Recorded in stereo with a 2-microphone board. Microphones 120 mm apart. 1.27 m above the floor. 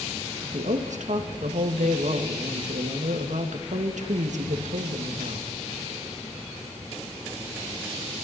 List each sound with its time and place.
0.4 s a woman speaking: 80° right, 1.8 m